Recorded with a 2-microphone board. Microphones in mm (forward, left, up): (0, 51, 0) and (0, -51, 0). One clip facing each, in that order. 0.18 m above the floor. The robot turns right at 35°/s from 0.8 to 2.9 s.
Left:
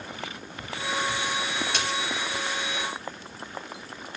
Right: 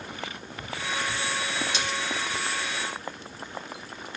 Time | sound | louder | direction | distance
1.7 | a splash | left 1 dB | 60° left (ahead or behind) | 2.5 m